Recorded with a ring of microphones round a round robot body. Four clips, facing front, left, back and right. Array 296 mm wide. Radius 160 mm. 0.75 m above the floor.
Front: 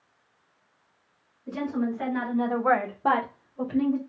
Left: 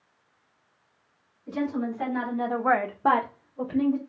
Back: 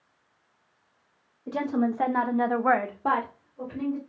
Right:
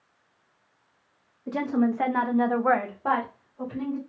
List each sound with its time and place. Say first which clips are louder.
1.5 s a woman speaking: right 4 dB, back 2 dB; 135° right, 1.8 m; by 4.0 s 60° left, 1.8 m